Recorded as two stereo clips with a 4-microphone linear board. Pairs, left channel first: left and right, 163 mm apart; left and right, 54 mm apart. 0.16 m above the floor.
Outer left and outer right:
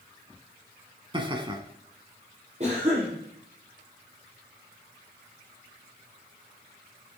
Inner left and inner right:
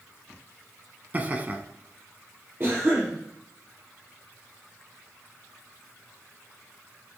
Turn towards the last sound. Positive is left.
turn(degrees=-40)  # may be behind; listen again after turning